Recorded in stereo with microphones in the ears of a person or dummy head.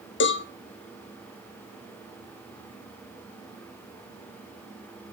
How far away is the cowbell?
About 0.7 m.